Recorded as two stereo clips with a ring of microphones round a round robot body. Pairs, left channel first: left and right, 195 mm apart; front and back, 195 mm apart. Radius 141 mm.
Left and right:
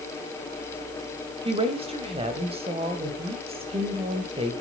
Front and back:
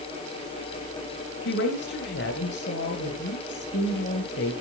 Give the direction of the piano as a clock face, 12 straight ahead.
No piano in this recording.